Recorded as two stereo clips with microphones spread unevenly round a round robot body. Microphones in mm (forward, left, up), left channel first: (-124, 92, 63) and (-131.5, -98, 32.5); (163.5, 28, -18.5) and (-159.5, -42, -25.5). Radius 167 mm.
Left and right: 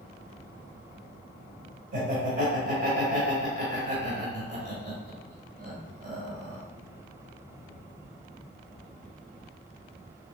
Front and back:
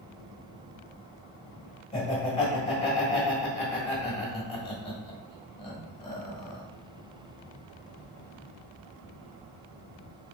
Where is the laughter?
60° right, 1.6 m.